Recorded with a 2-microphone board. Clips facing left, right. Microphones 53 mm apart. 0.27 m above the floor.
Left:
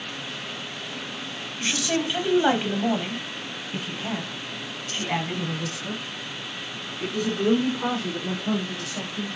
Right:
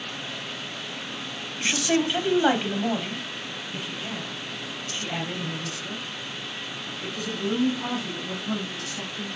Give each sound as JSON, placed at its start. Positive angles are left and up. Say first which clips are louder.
{"t": 1.6, "sound": "a woman speaking", "louder": "right 2 dB", "side_deg": -20, "distance_m": 1.3}